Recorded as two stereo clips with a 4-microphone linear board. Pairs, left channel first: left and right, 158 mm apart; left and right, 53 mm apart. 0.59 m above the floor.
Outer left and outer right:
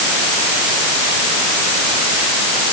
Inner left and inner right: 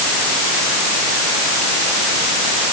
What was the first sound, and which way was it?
Only background noise.